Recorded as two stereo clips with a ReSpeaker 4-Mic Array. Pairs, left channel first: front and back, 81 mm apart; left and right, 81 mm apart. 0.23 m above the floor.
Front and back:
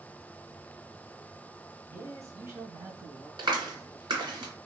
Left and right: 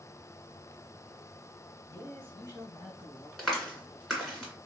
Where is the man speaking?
140° left, 1.3 m; by 3.3 s 130° left, 1.9 m.